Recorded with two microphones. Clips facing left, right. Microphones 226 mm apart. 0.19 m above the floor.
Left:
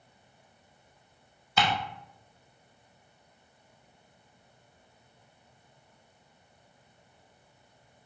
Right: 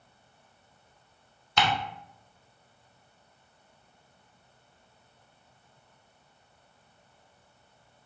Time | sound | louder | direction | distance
1.6 | ticking | even | 5° left (ahead or behind) | 0.7 m